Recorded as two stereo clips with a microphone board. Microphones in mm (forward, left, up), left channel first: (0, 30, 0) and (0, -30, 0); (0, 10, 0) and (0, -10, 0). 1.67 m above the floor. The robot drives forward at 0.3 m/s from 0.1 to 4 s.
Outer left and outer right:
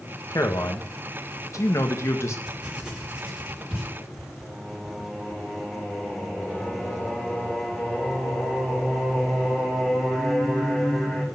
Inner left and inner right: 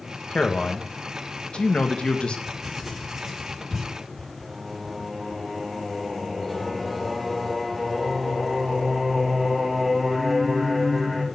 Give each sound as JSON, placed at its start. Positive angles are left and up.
{"t": 0.3, "sound": "a man speaking", "side_deg": 70, "distance_m": 1.6}
{"t": 2.5, "sound": "writing", "side_deg": -15, "distance_m": 5.0}
{"t": 4.4, "sound": "singing", "side_deg": 5, "distance_m": 3.0}